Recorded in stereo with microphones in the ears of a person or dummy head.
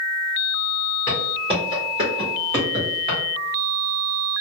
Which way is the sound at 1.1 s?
15° left (ahead or behind).